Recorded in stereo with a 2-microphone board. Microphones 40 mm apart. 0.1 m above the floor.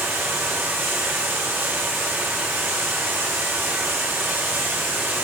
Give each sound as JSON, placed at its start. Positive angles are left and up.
{"t": 0.0, "sound": "running water", "side_deg": -80, "distance_m": 2.0}